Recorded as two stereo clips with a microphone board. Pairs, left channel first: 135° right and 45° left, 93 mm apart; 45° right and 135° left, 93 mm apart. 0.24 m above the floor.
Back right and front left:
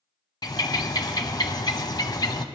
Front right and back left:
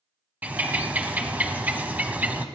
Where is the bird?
160° right, 0.7 m.